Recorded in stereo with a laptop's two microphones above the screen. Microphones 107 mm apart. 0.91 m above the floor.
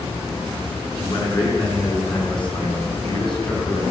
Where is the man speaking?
55° left (ahead or behind), 8.5 m; by 3.8 s 45° left (ahead or behind), 4.5 m.